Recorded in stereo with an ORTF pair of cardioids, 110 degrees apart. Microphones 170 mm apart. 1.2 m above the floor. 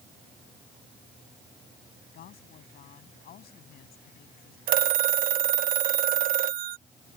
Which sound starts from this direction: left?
A woman speaking, at 2.1 s.